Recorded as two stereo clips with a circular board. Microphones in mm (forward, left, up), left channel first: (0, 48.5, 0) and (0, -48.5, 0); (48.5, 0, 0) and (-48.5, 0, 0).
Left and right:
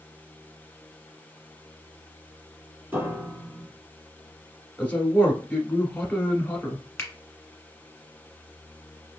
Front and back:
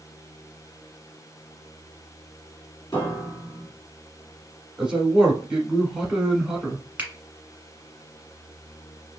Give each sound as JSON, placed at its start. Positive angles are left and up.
{"t": 2.9, "sound": "a piano", "azimuth_deg": -35, "distance_m": 1.6}
{"t": 4.8, "sound": "a man speaking", "azimuth_deg": 115, "distance_m": 1.0}
{"t": 7.0, "sound": "a finger snap", "azimuth_deg": 125, "distance_m": 1.4}